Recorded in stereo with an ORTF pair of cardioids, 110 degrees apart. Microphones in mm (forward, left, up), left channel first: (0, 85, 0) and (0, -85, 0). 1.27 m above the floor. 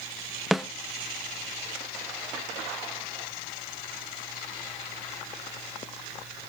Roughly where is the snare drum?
Ahead.